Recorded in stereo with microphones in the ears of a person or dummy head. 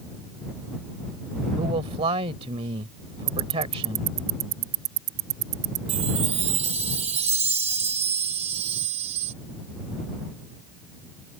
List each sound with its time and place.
1.6 s a man speaking: 25° right (ahead or behind)
3.3 s ticking: 55° right (ahead or behind)
5.9 s a chime: 35° right (ahead or behind)